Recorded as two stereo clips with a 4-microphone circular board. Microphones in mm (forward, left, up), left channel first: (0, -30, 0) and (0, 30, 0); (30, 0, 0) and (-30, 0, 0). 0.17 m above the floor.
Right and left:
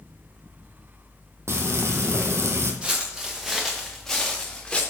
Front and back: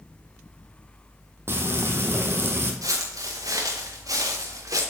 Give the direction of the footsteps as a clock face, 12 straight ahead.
7 o'clock.